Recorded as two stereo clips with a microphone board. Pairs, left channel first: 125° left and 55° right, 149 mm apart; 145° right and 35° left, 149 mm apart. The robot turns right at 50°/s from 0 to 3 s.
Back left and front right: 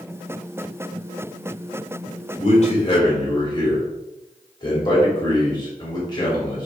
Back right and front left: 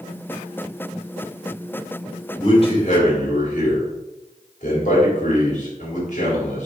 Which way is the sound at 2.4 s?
155° left.